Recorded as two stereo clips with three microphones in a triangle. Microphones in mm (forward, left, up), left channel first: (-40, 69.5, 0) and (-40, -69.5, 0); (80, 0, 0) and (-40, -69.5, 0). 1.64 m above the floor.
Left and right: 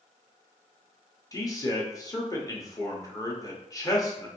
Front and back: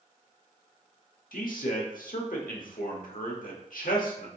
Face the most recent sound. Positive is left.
turn(degrees=25)